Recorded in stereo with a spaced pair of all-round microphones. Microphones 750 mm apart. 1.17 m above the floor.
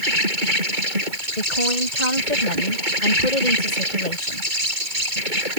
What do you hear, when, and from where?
0.0 s an insect: 75° right (ahead or behind)
1.4 s a woman speaking: 65° left (ahead or behind)